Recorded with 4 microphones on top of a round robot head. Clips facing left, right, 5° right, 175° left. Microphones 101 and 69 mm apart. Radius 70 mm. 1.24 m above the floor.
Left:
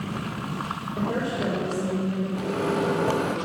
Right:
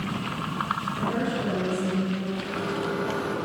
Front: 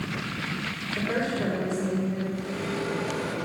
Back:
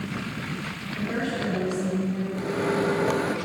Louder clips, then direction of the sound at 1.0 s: Left 3 dB, front 1 dB; 50° left.